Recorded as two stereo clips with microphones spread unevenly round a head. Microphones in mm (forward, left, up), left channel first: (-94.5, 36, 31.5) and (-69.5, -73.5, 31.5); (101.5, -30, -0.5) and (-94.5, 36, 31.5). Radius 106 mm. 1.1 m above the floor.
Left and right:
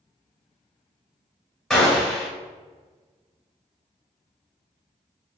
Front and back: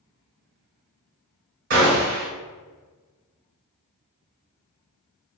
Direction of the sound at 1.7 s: 175° right.